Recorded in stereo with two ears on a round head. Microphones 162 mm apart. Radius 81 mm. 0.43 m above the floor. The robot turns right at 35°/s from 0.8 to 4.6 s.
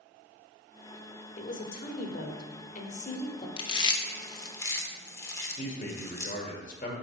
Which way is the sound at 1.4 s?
60° left.